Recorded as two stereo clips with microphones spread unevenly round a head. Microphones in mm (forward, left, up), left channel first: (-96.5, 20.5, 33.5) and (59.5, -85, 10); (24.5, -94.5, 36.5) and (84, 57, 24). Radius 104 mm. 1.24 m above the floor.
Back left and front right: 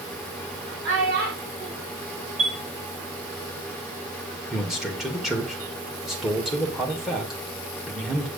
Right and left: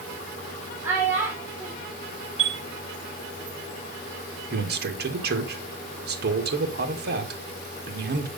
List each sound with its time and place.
0.8 s a child speaking: 5° right, 3.5 m
2.4 s a chime: 25° left, 2.5 m
4.5 s a man speaking: 55° left, 2.0 m